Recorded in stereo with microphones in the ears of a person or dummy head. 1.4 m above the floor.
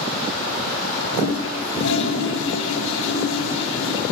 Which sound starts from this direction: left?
A toilet flushing, at 1.1 s.